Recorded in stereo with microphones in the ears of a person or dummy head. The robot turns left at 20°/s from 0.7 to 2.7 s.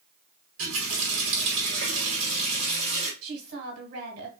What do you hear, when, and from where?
0.6 s a running tap: 95° right, 1.6 m; by 3.1 s 135° right, 1.6 m
3.2 s a woman speaking: 50° right (ahead or behind), 1.4 m